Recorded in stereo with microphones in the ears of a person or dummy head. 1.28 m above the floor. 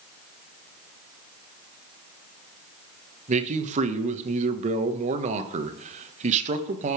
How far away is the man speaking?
About 1.1 m.